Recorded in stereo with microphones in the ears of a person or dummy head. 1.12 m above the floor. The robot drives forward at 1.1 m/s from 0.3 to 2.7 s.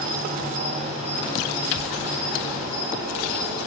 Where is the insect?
45° right (ahead or behind), 1.8 m; by 3.7 s 20° right (ahead or behind), 4 m.